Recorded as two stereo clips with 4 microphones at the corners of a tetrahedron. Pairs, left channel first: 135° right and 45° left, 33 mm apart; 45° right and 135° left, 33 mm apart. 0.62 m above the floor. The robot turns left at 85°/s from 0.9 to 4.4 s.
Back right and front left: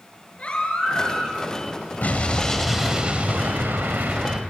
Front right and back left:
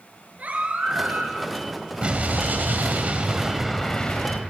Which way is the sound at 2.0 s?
170° right.